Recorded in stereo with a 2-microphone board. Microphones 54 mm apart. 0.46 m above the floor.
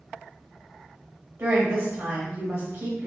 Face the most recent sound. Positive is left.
turn(degrees=-60)  # may be behind; listen again after turning